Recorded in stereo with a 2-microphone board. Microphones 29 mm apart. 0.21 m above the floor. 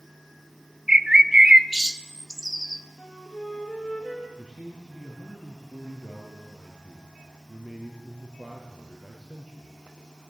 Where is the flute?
20° left (ahead or behind), 4 m.